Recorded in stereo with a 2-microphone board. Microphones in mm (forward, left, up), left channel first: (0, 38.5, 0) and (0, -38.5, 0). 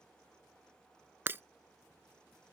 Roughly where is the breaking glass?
Right.